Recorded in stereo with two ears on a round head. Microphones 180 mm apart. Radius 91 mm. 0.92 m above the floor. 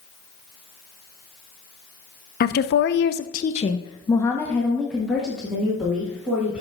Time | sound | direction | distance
2.4 | a woman speaking | 50° left (ahead or behind) | 0.6 m